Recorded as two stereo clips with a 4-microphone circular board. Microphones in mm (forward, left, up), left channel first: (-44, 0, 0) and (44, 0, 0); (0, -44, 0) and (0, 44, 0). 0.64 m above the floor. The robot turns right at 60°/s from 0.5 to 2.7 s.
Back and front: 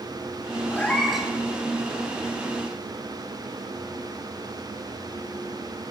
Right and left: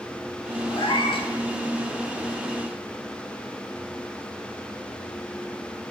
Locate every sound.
0.7 s a cat meowing: 115° right, 1.6 m; by 1.3 s 80° right, 1.6 m